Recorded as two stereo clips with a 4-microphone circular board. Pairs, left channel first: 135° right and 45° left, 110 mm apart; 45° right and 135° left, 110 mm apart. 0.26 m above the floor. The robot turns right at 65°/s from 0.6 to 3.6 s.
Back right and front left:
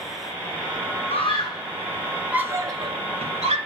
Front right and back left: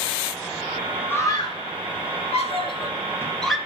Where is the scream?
110° right, 3.5 m; by 3.6 s 50° left, 3.5 m.